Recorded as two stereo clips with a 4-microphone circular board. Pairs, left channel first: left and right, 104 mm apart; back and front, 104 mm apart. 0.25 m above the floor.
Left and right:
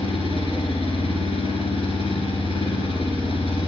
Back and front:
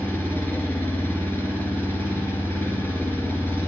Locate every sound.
0.0 s an engine running: 110° left, 2 m